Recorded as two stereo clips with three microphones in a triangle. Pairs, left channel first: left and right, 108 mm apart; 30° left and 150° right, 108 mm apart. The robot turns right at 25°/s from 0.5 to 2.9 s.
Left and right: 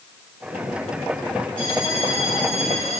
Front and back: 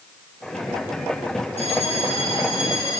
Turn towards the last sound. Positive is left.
turn(degrees=80)